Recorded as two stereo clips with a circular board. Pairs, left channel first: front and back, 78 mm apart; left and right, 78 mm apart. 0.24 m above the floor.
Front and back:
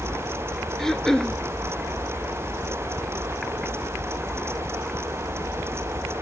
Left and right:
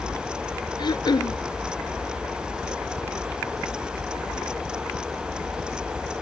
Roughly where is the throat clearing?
Left.